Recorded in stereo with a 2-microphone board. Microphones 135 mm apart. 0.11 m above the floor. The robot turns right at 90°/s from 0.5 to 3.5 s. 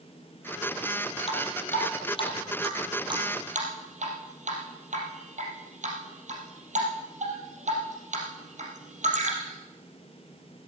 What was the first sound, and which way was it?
Dripping, 45° left (ahead or behind).